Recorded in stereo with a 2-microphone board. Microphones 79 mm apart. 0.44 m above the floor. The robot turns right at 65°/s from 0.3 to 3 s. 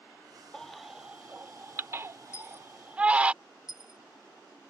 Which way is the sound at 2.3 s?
40° left (ahead or behind).